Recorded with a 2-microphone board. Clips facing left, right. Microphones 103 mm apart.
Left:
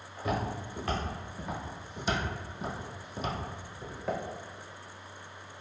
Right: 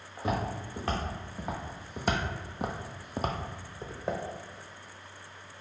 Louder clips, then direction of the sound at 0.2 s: Right 1 dB; 30° right (ahead or behind).